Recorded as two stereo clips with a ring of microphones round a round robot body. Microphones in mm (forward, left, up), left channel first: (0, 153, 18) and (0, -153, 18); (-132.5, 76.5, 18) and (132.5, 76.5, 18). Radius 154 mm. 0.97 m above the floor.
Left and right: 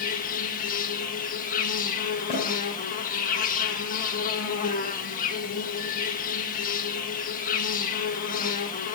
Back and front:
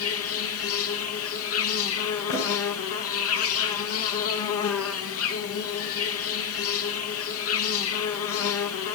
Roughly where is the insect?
Behind left.